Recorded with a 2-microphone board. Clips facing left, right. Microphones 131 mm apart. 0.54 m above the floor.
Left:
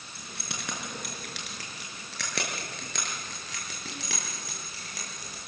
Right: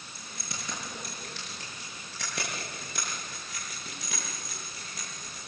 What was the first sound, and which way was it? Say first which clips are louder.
Keys jangling: left 2 dB; 65° left (ahead or behind).